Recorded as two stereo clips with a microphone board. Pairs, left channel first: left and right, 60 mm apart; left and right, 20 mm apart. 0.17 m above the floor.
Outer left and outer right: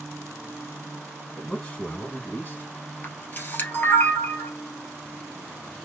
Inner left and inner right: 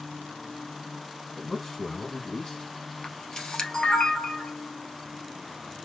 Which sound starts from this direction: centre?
A man speaking, at 1.4 s.